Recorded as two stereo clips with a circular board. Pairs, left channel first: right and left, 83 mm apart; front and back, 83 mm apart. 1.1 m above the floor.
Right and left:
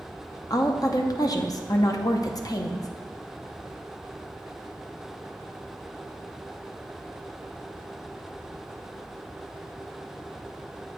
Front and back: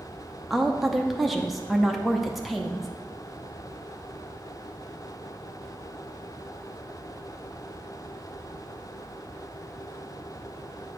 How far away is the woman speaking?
About 0.7 m.